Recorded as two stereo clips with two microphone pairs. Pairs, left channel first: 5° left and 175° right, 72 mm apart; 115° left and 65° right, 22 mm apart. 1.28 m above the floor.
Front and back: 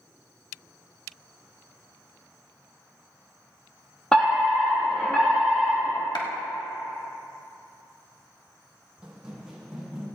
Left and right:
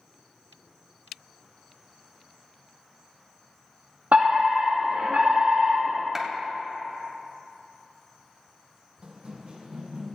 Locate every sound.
4.1 s a fire alarm: 75° right, 4.5 m
6.2 s a clap: 5° left, 1.4 m
9.0 s running footsteps: 100° right, 2.5 m; by 10.1 s 85° right, 4 m